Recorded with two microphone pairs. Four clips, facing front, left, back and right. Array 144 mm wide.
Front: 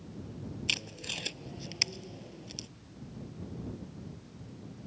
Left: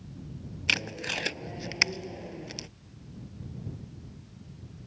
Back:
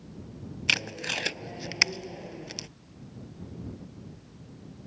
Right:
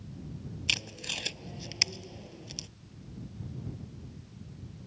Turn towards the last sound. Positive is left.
turn(degrees=145)